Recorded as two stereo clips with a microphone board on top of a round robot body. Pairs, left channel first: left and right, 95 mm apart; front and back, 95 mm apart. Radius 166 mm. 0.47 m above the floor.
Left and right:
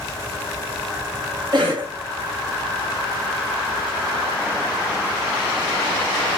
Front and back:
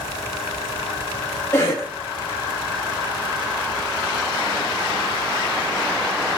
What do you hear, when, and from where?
1.5 s a cough: 65° right, 1.7 m